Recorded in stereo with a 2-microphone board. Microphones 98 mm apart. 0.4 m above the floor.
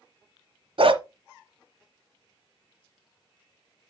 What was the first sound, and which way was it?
A dog barking, 60° right (ahead or behind).